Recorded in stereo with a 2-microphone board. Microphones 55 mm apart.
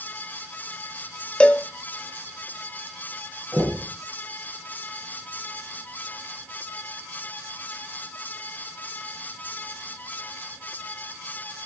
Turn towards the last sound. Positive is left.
turn(degrees=-25)  # may be behind; listen again after turning